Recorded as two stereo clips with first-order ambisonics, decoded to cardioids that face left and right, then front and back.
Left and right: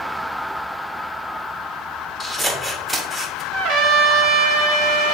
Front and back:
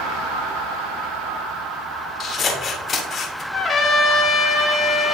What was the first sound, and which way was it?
Scissors, 20° right.